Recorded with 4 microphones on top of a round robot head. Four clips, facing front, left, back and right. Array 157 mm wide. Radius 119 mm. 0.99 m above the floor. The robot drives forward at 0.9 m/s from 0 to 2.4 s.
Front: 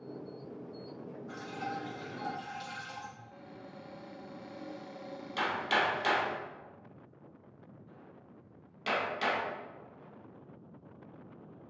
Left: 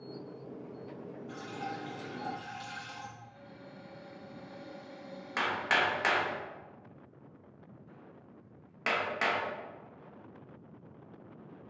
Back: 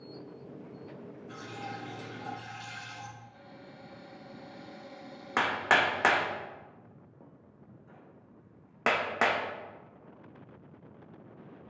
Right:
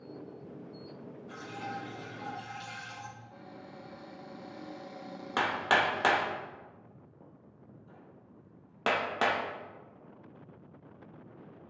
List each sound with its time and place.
1.3 s dripping: 25° left, 3.5 m; by 3.1 s 40° left, 2.5 m
3.2 s a cupboard door: 60° right, 1.2 m
5.4 s hammering: 145° right, 1.1 m